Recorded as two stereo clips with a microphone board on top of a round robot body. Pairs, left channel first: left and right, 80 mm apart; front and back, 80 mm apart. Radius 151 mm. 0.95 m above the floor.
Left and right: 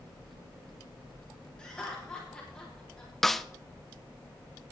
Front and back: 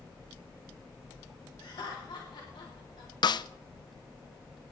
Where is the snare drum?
5° left, 0.6 m.